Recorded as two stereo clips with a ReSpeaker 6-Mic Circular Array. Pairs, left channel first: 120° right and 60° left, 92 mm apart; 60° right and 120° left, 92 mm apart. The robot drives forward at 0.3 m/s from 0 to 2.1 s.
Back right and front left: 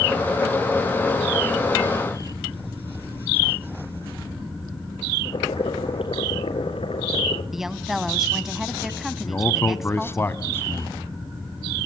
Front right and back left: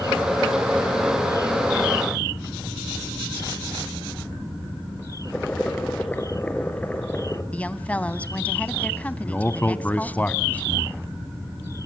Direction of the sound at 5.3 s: 135° right.